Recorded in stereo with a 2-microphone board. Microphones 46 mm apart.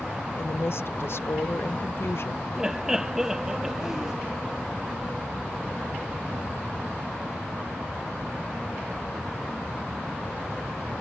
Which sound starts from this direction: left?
A woman speaking, at 0.4 s.